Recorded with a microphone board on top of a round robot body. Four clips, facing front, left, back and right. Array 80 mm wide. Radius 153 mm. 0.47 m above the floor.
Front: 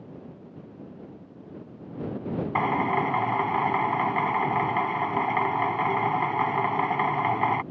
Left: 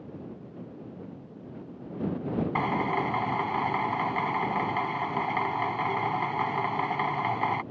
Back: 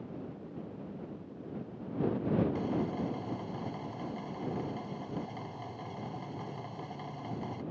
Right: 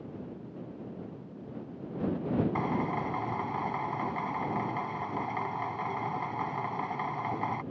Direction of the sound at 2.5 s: 15° left.